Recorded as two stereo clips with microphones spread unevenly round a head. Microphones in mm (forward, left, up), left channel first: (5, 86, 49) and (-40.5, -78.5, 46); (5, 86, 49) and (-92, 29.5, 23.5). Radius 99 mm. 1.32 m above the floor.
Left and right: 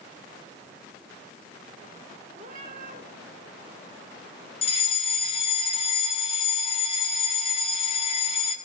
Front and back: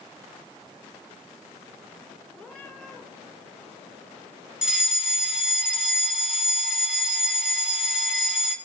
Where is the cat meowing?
55° right, 3 m.